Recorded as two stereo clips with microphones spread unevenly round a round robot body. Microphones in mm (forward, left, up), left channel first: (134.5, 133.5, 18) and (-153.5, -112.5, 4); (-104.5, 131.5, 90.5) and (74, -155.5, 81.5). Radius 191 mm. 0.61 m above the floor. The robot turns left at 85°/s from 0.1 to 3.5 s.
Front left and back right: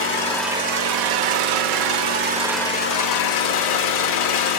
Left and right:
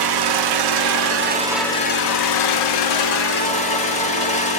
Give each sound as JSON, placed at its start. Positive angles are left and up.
{"t": 0.0, "sound": "an engine running", "azimuth_deg": -20, "distance_m": 0.8}